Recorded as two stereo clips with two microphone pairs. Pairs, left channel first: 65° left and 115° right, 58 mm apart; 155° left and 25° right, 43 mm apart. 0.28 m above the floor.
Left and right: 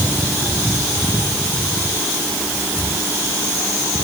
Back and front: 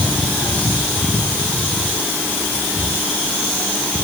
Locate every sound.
Only background noise.